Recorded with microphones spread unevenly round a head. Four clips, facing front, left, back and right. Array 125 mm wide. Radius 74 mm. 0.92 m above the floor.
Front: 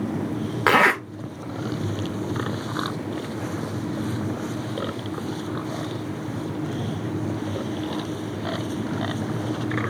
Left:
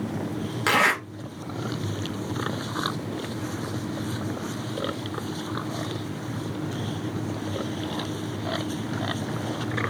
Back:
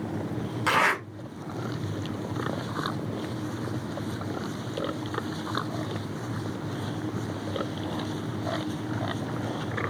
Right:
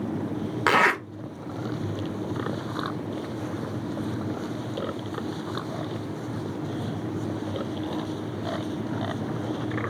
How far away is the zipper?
About 0.5 m.